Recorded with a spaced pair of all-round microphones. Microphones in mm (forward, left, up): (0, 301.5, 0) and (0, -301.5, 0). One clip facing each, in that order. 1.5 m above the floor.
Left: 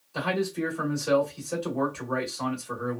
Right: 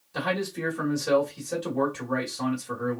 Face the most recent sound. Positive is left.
turn(degrees=-45)  # may be behind; listen again after turning